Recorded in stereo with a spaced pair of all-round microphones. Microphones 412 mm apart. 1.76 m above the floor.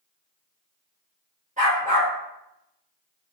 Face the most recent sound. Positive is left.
turn(degrees=-20)  # may be behind; listen again after turning